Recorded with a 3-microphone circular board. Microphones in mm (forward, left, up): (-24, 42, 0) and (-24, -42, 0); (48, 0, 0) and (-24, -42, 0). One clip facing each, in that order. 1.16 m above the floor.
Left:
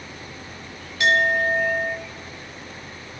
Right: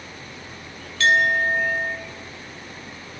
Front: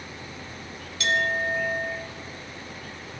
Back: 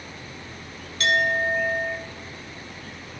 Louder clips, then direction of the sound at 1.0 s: Even, back 3 dB; 165° left.